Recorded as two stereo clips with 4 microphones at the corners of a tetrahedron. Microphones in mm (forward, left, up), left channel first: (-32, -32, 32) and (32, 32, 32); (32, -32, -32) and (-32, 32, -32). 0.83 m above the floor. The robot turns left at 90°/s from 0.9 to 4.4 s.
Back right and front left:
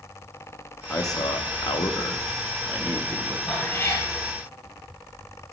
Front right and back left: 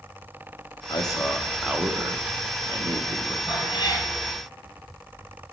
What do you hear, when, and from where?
0.9 s a man speaking: 75° right, 0.9 m; by 3.4 s 65° left, 0.9 m
3.5 s a cat meowing: 40° right, 3 m; by 4.1 s 95° right, 3 m